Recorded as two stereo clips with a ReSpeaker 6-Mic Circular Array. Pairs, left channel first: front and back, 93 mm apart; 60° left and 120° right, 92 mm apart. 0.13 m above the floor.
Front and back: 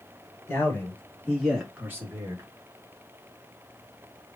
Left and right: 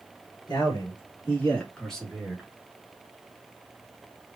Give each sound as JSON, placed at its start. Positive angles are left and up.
{"t": 0.5, "sound": "a man speaking", "azimuth_deg": 50, "distance_m": 2.0}